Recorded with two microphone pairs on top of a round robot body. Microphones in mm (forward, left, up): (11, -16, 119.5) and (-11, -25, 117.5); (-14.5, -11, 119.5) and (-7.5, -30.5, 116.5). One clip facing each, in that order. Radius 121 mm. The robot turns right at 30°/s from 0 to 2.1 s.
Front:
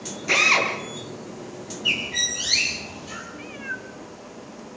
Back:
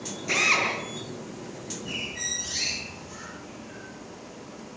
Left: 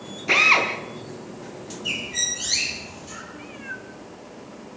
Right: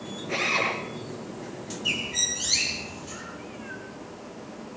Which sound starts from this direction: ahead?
A bird, at 1.9 s.